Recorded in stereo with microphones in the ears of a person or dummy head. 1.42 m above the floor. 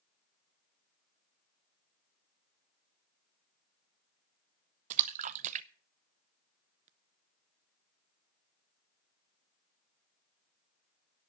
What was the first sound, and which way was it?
A splash, 35° right (ahead or behind).